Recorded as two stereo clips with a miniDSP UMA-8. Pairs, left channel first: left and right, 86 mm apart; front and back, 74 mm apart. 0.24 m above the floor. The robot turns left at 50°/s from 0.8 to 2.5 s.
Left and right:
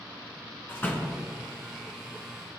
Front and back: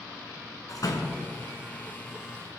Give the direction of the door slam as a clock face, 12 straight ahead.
11 o'clock.